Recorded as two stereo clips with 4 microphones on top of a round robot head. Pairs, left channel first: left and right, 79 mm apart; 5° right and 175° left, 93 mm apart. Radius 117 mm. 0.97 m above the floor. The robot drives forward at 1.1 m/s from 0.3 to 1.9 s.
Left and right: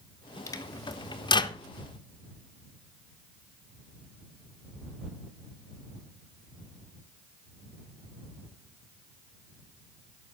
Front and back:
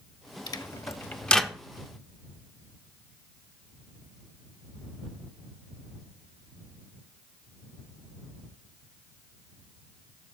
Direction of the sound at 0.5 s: 40° left.